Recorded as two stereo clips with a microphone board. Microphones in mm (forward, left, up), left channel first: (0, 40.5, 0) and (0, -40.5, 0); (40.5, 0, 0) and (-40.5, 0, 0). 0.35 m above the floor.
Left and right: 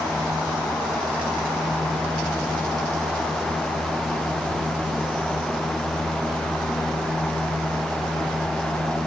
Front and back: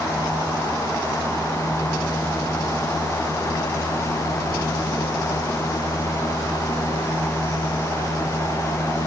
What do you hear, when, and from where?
Only background noise.